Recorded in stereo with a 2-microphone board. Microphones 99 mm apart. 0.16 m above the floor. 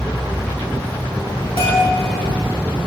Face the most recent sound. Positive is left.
turn(degrees=55)  # may be behind; listen again after turning